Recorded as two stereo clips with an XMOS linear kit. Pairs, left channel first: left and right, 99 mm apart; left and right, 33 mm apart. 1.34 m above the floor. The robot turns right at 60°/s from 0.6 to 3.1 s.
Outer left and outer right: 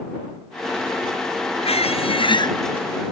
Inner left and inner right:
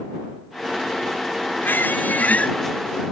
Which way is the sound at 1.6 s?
85° left.